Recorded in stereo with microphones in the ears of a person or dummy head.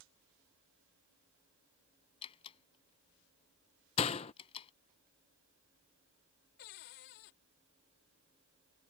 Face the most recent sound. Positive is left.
turn(degrees=55)  # may be behind; listen again after turning